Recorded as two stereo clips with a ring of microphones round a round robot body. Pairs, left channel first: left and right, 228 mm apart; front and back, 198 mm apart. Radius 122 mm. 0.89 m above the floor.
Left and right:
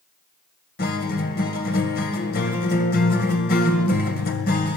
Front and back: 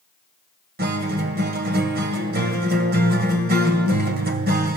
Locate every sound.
0.8 s a guitar: 140° left, 2 m